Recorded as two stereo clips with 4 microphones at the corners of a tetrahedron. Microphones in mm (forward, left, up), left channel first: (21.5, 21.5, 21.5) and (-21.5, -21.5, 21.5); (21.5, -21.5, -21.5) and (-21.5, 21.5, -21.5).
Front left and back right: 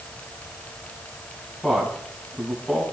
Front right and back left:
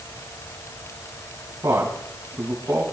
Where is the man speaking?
135° left, 5 m.